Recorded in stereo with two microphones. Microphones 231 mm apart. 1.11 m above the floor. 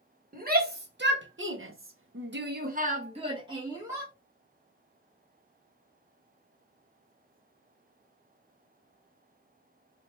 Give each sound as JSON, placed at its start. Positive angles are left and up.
{"t": 0.3, "sound": "a shout", "side_deg": -40, "distance_m": 1.4}